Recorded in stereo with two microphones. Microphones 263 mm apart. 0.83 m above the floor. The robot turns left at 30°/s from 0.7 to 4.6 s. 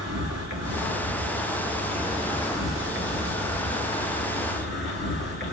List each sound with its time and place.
0.0 s an insect: 110° right, 5 m; by 5.5 s 135° left, 5 m